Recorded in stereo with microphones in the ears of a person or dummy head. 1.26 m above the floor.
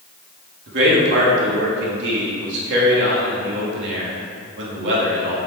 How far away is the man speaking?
About 3 m.